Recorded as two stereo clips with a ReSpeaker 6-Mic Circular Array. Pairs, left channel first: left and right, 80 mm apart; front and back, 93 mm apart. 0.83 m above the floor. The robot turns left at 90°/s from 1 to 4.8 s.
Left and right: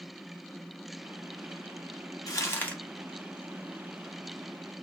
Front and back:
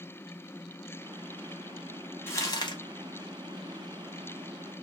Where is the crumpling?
60° left, 0.9 m; by 2.8 s 15° left, 0.9 m.